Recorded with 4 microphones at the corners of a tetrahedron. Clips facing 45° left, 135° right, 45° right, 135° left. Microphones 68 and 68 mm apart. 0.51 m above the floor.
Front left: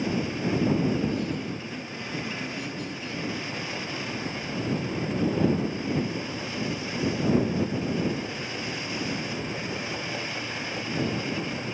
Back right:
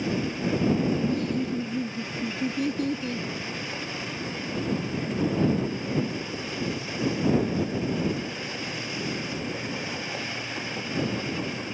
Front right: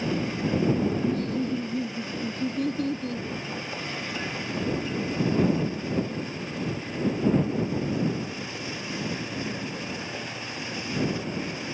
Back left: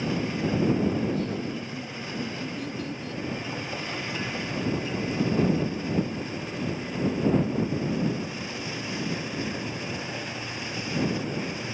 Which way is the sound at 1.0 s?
95° right.